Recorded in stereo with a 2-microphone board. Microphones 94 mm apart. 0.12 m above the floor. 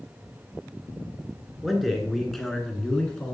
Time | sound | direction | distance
1.6 | a man speaking | 5° right (ahead or behind) | 1.2 m